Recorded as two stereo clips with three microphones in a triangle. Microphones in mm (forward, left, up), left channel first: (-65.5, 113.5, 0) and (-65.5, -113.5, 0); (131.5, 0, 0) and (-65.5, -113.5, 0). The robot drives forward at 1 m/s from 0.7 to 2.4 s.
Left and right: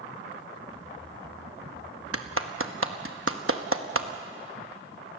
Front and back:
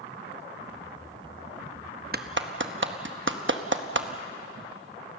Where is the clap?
100° right, 1.0 m; by 4.1 s 115° right, 1.1 m.